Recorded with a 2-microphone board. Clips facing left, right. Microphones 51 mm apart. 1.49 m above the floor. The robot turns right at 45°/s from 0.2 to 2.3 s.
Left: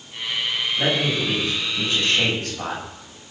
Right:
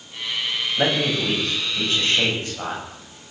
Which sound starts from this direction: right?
A man speaking, at 0.8 s.